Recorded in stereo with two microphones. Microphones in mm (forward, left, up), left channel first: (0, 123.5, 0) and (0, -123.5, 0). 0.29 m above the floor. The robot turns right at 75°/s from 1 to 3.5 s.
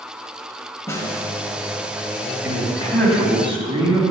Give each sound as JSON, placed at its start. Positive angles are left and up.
{"t": 0.9, "sound": "a snare drum", "side_deg": 10, "distance_m": 1.4}
{"t": 2.4, "sound": "a man speaking", "azimuth_deg": 130, "distance_m": 1.9}